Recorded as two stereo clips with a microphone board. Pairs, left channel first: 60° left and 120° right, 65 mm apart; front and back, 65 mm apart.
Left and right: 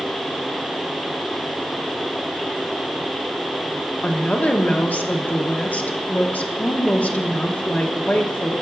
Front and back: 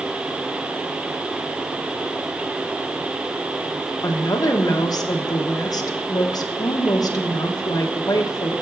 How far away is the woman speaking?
About 1.1 m.